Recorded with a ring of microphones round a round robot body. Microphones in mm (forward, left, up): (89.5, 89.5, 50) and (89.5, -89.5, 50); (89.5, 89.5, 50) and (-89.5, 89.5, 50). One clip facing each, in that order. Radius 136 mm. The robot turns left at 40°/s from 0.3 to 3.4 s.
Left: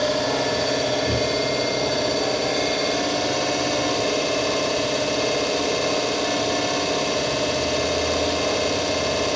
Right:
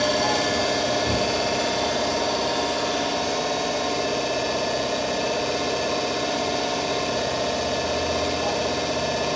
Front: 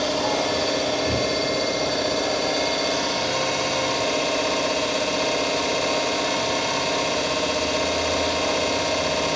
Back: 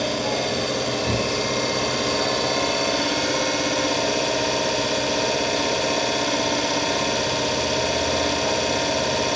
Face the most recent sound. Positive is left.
turn(degrees=135)